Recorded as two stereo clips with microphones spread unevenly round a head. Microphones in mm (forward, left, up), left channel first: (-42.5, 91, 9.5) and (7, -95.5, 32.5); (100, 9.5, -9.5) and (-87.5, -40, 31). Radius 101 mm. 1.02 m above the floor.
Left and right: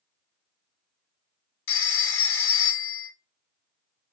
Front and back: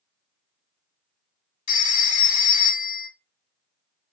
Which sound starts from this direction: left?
A phone ringing, at 1.7 s.